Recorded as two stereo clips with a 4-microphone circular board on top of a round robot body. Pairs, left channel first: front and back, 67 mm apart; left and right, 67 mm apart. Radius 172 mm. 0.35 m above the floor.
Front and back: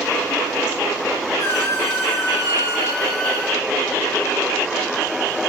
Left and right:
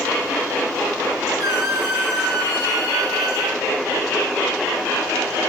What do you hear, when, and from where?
1.4 s a squeak: 55° right, 2.5 m